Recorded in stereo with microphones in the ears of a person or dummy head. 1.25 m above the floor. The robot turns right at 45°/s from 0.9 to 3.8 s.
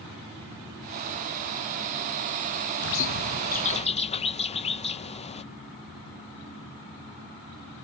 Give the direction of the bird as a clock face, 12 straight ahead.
9 o'clock.